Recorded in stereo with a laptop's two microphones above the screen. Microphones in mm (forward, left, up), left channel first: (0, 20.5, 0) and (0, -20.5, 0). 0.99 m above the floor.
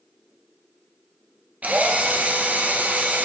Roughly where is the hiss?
I don't hear a hiss.